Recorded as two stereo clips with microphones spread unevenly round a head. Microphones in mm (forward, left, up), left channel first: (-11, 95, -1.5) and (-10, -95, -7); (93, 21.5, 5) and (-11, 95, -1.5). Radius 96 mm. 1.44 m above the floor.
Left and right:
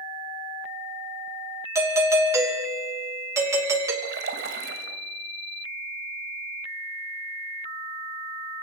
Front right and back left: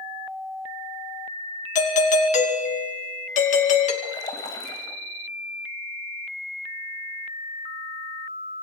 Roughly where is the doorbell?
Ahead.